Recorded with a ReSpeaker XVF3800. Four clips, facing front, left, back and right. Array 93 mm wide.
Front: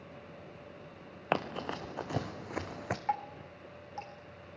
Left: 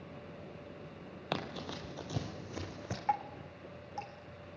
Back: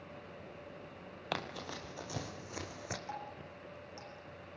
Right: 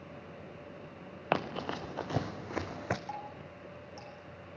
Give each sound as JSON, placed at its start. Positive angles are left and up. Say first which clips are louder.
{"t": 1.3, "sound": "running footsteps", "louder": "right 7 dB, front 7 dB", "azimuth_deg": -45, "distance_m": 1.4}
{"t": 3.1, "sound": "dripping", "louder": "left 7 dB, front 9 dB", "azimuth_deg": 50, "distance_m": 4.0}